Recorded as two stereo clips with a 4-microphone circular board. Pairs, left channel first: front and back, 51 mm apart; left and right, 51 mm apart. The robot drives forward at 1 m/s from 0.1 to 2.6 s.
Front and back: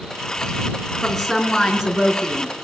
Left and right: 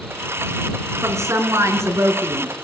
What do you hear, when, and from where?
1.0 s a woman speaking: 85° right, 4.5 m; by 2.5 s 105° right, 4.5 m